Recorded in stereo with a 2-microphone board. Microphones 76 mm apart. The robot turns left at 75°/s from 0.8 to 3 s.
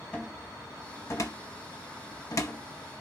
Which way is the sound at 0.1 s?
15° left (ahead or behind).